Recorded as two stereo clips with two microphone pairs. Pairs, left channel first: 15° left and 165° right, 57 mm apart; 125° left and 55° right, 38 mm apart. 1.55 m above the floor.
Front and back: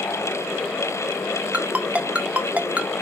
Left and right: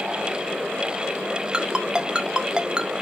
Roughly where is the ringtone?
Right.